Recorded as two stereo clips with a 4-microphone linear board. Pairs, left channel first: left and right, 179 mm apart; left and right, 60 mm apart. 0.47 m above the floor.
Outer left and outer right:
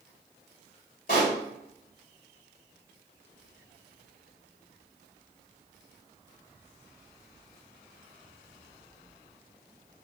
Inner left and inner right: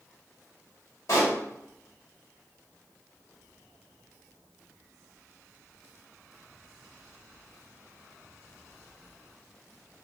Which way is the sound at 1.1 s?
55° left (ahead or behind).